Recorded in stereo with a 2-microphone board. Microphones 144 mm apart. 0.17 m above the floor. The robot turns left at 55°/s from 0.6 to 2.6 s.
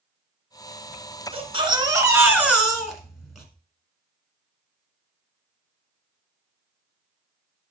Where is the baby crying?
105° right, 1.4 m; by 3.5 s straight behind, 1.4 m.